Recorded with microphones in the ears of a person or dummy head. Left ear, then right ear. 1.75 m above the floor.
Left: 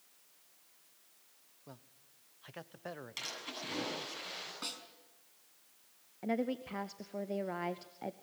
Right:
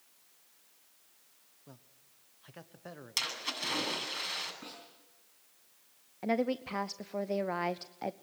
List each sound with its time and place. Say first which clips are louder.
1.7 s a man speaking: left 2 dB; 20° left (ahead or behind), 0.9 m
3.2 s a splash: right 10 dB; 35° right (ahead or behind), 8.5 m
4.6 s a snare drum: left 5 dB; 40° left (ahead or behind), 5 m
6.2 s a woman speaking: right 5 dB; 20° right (ahead or behind), 0.6 m